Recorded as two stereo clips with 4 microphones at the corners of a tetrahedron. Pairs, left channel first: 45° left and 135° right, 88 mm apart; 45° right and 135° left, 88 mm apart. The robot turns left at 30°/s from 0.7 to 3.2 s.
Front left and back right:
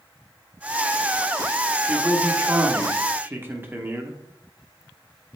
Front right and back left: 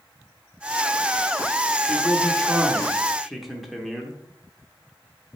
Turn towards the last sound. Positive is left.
turn(degrees=-135)